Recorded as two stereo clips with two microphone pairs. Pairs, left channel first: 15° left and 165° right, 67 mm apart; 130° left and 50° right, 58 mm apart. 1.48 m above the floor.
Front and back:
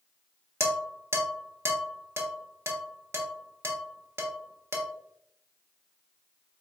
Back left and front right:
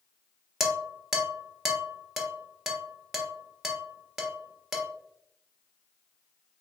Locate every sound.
0.6 s dishes clattering: 130° right, 0.8 m